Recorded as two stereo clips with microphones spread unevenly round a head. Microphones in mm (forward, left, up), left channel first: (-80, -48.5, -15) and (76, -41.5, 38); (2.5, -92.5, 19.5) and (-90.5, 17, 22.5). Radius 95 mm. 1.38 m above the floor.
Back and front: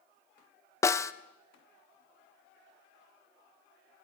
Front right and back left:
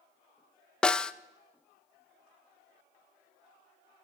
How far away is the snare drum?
About 0.6 m.